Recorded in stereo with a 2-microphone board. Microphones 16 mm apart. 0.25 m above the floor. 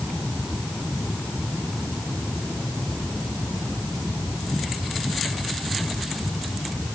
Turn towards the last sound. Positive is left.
No sound to turn to.